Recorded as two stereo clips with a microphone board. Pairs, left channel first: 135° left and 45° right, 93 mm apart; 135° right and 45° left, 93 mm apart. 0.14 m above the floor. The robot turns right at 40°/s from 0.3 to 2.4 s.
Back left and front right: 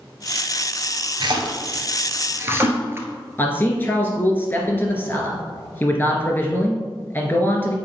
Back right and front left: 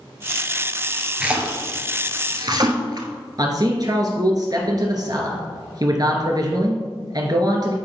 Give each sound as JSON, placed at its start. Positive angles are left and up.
{"t": 1.2, "sound": "a splash", "azimuth_deg": -35, "distance_m": 1.3}
{"t": 3.4, "sound": "a man speaking", "azimuth_deg": 70, "distance_m": 1.8}